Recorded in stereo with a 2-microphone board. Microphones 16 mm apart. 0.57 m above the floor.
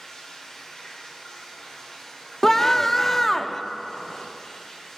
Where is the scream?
25° left (ahead or behind), 0.7 m.